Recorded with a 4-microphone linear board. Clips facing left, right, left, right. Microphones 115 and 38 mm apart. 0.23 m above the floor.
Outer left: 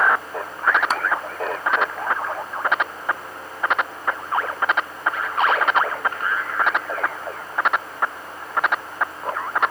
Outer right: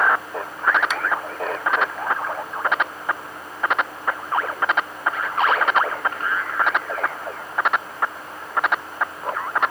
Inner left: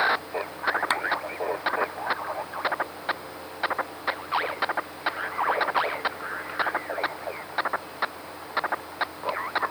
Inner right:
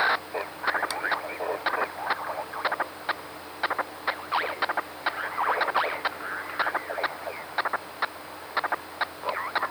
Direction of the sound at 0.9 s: 40° left (ahead or behind).